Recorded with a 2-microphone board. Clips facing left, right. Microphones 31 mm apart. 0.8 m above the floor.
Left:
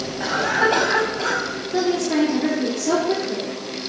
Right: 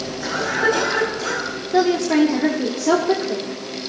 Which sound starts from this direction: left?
A cough, at 0.2 s.